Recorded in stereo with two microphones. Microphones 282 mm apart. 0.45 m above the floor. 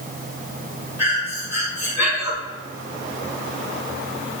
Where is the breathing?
75° left (ahead or behind), 2.5 m.